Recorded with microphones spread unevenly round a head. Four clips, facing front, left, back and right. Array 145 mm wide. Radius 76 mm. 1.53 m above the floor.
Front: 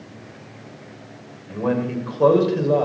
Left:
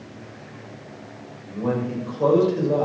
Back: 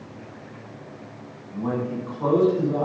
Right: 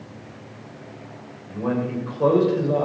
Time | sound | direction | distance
1.5 | a man speaking | straight ahead | 5.5 m